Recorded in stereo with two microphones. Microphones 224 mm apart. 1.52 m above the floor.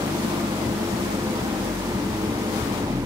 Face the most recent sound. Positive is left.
turn(degrees=-15)  # may be behind; listen again after turning